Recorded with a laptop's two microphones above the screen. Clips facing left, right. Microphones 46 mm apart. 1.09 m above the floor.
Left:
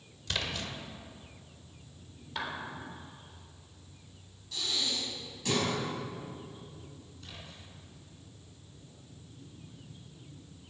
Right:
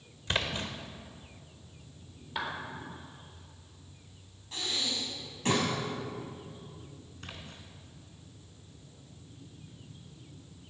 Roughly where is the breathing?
Right.